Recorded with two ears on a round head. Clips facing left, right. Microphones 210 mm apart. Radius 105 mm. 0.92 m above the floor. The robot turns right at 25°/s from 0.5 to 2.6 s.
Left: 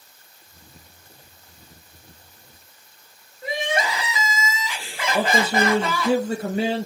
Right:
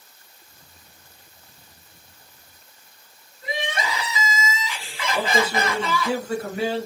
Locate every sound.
3.4 s crying: 45° left (ahead or behind), 1.1 m
5.1 s a man speaking: 25° left (ahead or behind), 1.2 m